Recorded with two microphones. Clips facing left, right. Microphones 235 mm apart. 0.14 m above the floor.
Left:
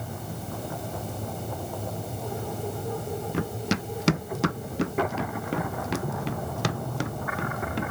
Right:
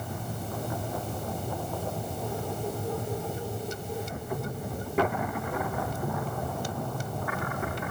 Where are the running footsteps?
80° left; by 7.9 s 70° left (ahead or behind).